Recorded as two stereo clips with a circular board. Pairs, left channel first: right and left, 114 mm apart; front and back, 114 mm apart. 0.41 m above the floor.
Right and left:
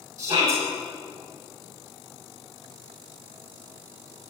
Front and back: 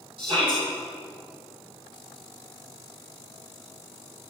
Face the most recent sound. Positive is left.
turn(degrees=145)